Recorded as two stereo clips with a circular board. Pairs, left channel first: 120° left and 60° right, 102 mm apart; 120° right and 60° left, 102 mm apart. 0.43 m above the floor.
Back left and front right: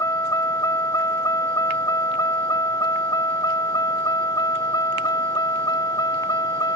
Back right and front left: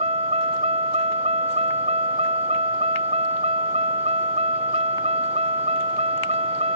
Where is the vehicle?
60° left; by 6.8 s 70° left.